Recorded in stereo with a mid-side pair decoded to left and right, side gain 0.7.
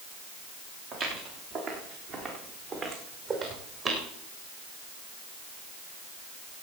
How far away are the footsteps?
About 5.5 m.